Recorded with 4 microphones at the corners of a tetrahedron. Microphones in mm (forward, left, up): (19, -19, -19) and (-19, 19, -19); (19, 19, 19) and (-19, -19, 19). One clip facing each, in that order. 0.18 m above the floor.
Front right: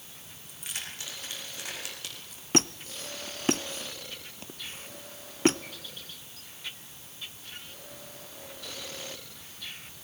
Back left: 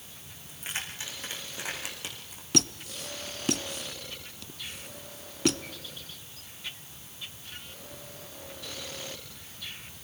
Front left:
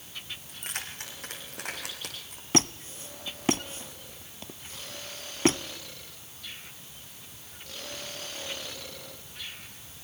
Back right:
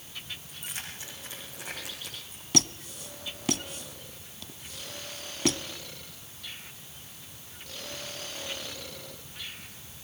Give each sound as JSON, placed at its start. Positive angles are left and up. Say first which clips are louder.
{"t": 0.5, "sound": "keys jangling", "louder": "back left 4 dB, front left 5 dB", "azimuth_deg": 75, "distance_m": 7.5}
{"t": 2.5, "sound": "a squeak", "louder": "front right 2 dB, front left 3 dB", "azimuth_deg": 0, "distance_m": 0.6}